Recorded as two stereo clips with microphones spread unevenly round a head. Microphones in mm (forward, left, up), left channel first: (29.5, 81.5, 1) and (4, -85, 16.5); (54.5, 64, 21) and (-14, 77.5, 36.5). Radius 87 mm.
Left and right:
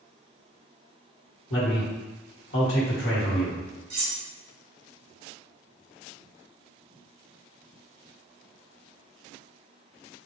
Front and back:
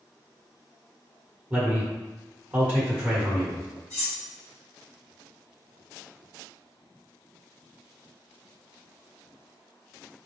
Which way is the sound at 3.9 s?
125° right.